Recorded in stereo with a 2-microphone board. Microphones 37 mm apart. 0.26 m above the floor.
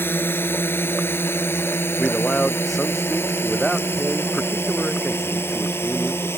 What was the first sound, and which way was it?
A drone, 65° left (ahead or behind).